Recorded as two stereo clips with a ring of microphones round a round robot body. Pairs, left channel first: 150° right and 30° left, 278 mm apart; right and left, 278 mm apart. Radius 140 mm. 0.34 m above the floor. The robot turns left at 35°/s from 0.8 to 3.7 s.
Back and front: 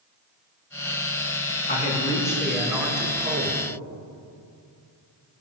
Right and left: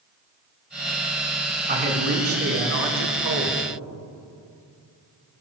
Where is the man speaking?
150° left, 3.5 m; by 3.6 s 85° left, 3.5 m.